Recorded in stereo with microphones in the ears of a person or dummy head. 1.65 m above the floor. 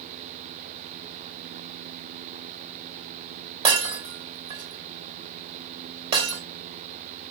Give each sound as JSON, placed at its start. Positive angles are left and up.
{"t": 3.6, "sound": "breaking glass", "side_deg": -35, "distance_m": 2.5}